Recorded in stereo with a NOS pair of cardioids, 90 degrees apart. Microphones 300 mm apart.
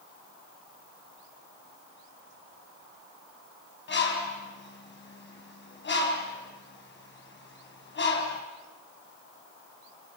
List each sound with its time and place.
3.9 s a bird: 40° left, 6.5 m